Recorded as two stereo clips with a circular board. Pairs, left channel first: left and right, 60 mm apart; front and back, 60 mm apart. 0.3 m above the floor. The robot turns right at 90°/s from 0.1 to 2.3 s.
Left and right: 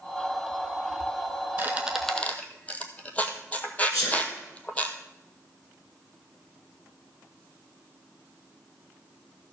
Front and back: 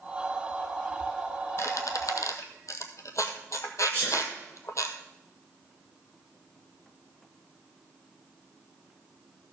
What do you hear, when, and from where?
1.6 s a squeak: 40° right, 1.1 m; by 4.9 s 25° left, 1.1 m
3.9 s a sneeze: 55° left, 6.5 m